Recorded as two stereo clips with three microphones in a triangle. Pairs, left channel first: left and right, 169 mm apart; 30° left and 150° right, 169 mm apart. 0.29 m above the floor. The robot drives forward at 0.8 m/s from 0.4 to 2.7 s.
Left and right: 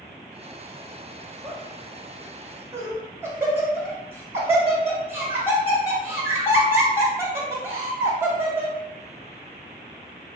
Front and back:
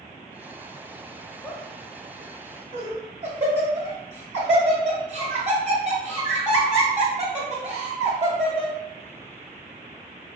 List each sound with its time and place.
1.4 s laughter: 45° right, 0.9 m; by 8.8 s 160° right, 1.1 m